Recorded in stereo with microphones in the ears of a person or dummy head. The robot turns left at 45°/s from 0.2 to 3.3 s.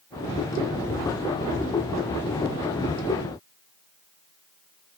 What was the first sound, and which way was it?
Only background noise.